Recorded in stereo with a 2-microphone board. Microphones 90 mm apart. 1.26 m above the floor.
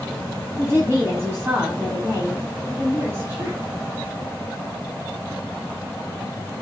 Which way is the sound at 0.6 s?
25° right (ahead or behind).